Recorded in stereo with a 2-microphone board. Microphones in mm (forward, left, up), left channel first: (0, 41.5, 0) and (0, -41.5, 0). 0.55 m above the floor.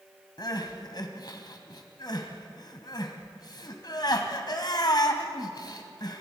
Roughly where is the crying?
Left.